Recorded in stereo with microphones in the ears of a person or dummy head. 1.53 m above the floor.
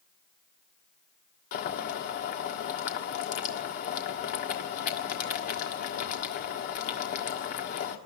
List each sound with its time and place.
1.5 s boiling: 50° left (ahead or behind), 1.5 m